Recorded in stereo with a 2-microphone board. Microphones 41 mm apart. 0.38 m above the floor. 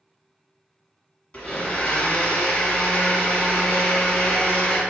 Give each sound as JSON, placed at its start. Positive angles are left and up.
{"t": 1.3, "sound": "a blender", "side_deg": 35, "distance_m": 1.1}